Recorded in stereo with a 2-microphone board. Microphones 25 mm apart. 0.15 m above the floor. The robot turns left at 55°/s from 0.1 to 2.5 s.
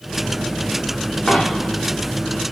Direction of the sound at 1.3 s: 25° left (ahead or behind).